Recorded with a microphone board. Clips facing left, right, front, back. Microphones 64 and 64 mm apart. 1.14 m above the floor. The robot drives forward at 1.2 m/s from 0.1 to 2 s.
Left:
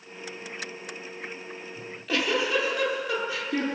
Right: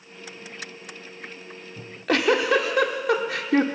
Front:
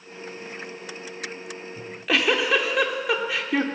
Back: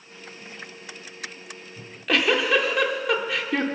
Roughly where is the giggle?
Right.